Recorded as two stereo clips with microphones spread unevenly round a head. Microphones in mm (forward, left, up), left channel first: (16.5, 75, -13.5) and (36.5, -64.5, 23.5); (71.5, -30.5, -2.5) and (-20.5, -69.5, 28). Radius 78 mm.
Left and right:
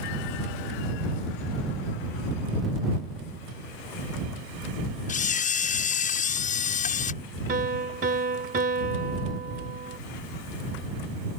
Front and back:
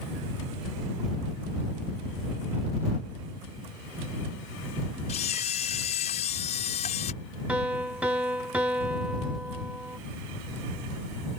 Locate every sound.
5.1 s a camera shutter: 65° left
7.5 s a piano: 90° right